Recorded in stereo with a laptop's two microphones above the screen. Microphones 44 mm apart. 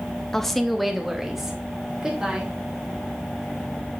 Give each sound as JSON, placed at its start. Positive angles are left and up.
{"t": 0.3, "sound": "a woman speaking", "side_deg": 10, "distance_m": 0.6}